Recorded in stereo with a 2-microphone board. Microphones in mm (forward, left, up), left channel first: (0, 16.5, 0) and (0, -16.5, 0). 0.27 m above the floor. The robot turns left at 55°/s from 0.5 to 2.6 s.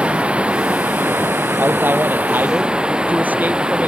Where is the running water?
35° right; by 3.9 s 150° right.